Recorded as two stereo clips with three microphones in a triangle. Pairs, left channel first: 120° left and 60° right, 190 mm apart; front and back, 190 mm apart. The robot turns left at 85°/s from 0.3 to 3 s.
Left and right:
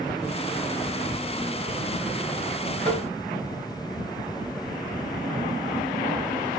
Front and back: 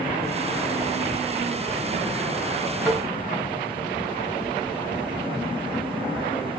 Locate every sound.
2.9 s tapping: 90° right, 1.9 m; by 3.0 s 100° right, 1.9 m